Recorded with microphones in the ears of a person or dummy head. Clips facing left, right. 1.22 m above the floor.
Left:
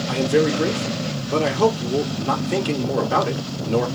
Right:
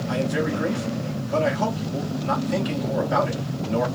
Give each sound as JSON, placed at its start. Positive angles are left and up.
{"t": 0.1, "sound": "a man speaking", "side_deg": 55, "distance_m": 1.8}